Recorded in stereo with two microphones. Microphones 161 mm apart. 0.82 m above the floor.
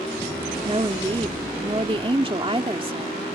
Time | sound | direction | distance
0.7 | a woman speaking | 30° right (ahead or behind) | ?